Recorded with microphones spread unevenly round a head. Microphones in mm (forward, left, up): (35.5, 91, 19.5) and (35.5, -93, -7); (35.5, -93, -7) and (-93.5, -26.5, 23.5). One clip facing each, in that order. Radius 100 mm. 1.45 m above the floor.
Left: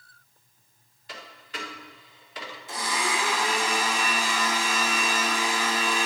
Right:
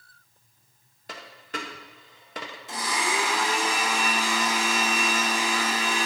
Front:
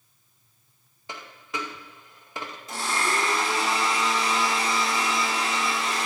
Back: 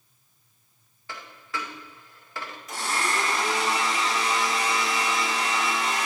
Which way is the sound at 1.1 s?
105° right.